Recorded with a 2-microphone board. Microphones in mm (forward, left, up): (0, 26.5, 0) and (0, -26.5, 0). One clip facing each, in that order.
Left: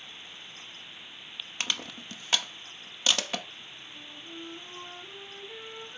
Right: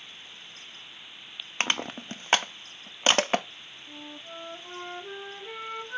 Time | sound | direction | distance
1.6 | crushing | 40° right (ahead or behind) | 0.6 m
3.9 | a flute | 70° right (ahead or behind) | 1.5 m